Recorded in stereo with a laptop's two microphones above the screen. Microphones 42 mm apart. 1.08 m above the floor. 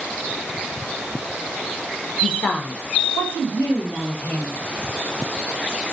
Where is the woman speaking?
10° left (ahead or behind), 0.6 m; by 4.6 s 80° left, 1.6 m.